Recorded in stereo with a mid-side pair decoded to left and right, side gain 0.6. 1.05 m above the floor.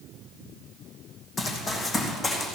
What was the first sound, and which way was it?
Running footsteps, 35° left.